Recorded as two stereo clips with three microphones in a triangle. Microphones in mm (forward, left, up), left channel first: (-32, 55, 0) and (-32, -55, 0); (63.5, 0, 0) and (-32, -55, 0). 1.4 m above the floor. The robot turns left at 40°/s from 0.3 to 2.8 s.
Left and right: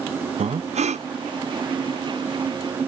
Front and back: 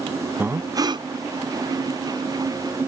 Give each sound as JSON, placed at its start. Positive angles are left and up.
{"t": 0.4, "sound": "breathing", "azimuth_deg": -75}